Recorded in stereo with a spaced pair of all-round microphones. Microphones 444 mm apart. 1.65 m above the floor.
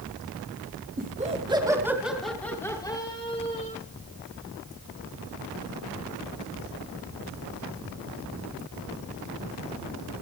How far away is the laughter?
About 4 m.